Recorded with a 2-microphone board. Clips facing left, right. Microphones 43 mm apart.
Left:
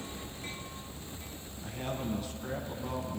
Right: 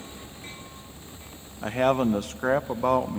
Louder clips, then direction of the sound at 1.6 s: Right 15 dB; 80° right.